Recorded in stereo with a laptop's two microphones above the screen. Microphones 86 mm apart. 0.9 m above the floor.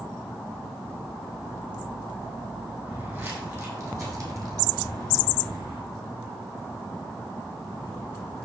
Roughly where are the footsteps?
Right.